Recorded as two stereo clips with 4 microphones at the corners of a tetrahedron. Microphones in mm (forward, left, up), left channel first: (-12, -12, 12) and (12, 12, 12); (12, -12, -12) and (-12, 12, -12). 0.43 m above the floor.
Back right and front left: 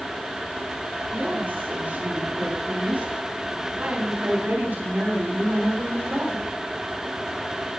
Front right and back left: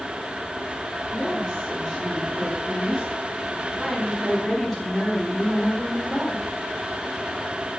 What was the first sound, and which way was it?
A woman speaking, 25° left.